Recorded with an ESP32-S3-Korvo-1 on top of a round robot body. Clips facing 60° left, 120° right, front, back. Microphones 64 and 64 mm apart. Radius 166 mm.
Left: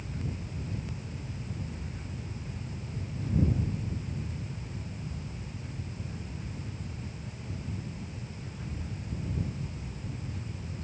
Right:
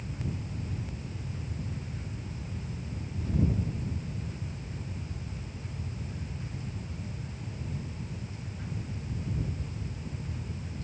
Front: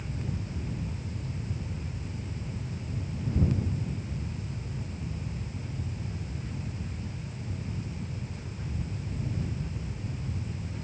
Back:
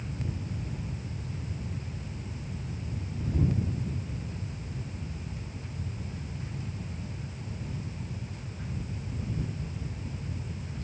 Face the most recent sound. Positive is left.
No sound to turn to.